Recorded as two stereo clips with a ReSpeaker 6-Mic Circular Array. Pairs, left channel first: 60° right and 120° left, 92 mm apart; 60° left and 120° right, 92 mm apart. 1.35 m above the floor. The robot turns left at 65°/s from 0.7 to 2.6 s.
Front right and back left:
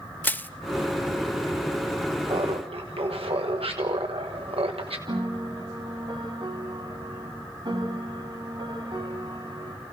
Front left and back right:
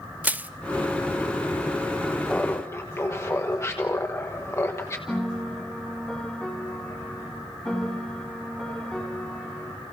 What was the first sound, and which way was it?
Crushing, 80° right.